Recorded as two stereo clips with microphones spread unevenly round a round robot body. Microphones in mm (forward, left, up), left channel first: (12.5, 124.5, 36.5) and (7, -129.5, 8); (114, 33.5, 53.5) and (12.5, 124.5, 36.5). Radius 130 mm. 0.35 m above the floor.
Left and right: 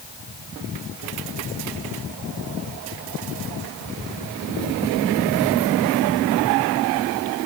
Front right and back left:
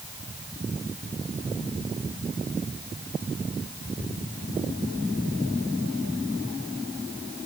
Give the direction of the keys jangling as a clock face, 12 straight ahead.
I don't hear keys jangling.